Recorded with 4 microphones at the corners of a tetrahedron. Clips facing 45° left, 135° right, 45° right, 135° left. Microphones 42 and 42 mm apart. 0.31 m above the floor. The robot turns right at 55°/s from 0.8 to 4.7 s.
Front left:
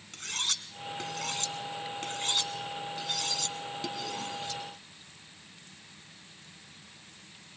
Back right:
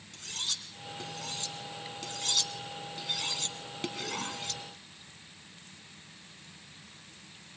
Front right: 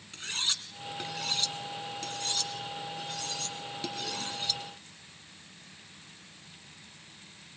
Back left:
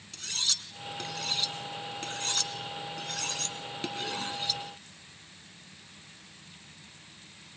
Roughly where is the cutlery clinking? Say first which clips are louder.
Front left 4 dB, front right 1 dB; ahead.